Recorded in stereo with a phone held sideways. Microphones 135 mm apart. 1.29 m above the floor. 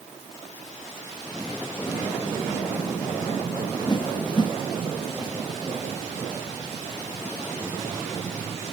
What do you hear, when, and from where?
3.9 s a whoosh: 35° left (ahead or behind), 0.7 m